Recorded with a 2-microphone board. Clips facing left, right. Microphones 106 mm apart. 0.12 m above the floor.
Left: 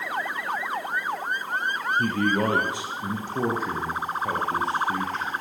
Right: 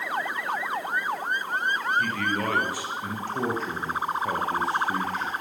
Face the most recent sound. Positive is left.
turn(degrees=-5)  # may be behind; listen again after turning